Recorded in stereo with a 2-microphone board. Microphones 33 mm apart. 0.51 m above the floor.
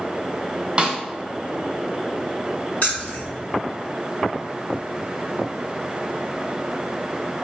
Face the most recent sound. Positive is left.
turn(degrees=50)  # may be behind; listen again after turning